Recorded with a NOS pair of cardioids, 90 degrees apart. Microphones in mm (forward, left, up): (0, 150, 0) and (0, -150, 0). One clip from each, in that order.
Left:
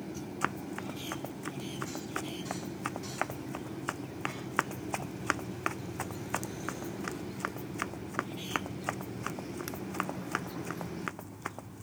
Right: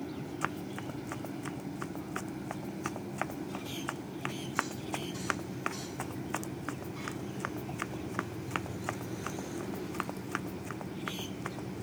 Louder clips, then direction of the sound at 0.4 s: Left 2 dB; 20° left.